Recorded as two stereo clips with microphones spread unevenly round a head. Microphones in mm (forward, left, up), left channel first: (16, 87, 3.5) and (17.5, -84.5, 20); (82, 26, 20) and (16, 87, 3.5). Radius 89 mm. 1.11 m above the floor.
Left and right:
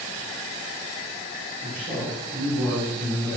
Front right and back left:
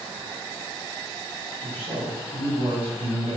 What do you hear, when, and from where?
1.6 s a man speaking: 170° left, 3.5 m